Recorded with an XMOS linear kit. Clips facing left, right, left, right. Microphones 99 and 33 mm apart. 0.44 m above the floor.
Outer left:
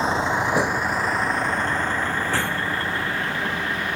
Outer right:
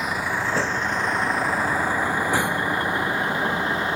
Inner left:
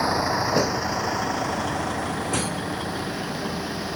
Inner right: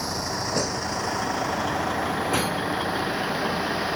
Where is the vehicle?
30° left (ahead or behind); by 4.0 s 25° right (ahead or behind).